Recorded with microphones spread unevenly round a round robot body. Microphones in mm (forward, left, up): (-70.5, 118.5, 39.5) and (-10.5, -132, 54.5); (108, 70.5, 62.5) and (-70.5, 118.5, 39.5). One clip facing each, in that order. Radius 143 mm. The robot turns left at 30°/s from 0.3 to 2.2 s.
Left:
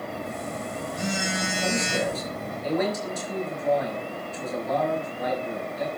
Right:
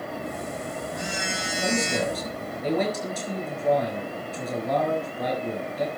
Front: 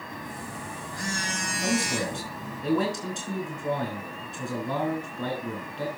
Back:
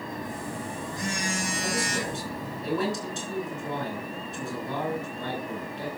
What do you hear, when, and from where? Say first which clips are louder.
0.1 s a phone buzzing: even, back 2 dB; 115° left, 5.5 m; by 2.6 s 55° left, 5.5 m
1.6 s a man speaking: right 2 dB, front 7 dB; 5° left, 6 m; by 5.9 s 15° right, 6 m